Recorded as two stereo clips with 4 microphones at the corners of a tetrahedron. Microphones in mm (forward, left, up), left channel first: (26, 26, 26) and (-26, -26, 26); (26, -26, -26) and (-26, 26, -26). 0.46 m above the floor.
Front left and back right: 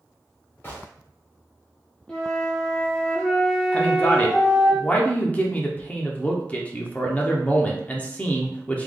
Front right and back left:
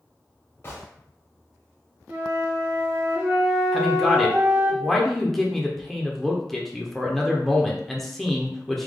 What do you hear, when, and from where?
0.6 s a gunshot: 5° right, 1.5 m
2.1 s a flute: 105° left, 1.1 m
3.7 s a man speaking: 35° left, 0.8 m